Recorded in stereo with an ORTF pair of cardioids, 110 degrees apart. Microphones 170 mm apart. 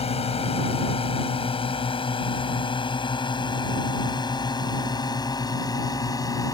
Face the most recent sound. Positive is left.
turn(degrees=20)